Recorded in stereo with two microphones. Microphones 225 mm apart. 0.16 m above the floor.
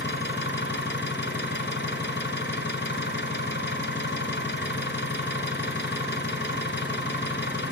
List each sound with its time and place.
0.0 s an engine running: 55° left (ahead or behind), 0.9 m